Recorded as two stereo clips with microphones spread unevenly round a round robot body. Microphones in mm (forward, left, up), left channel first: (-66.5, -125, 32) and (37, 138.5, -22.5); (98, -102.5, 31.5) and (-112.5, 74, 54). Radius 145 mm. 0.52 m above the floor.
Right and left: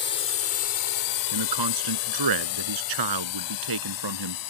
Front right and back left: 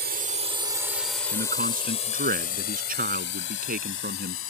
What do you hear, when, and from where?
0.0 s a drone: 170° right; by 4.5 s 80° right
1.3 s a man speaking: 75° left